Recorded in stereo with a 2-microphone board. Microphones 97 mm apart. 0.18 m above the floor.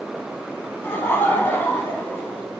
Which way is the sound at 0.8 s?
20° left (ahead or behind).